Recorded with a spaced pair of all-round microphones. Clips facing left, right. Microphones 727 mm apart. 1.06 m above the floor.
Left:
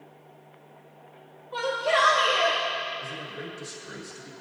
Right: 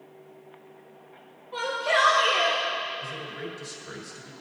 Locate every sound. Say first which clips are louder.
1.5 s a shout: left 2 dB; 15° left (ahead or behind), 1.9 m; by 2.6 s 20° left (ahead or behind), 3 m
3.0 s a man speaking: right 1 dB; 5° left (ahead or behind), 1.6 m